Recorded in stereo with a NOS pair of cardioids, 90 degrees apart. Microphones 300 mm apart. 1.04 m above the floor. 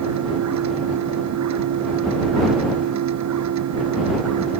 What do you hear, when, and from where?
0.0 s a machine running: 65° right